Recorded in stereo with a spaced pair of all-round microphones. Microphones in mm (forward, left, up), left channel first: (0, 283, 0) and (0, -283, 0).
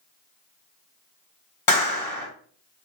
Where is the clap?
65° left (ahead or behind), 1.9 m.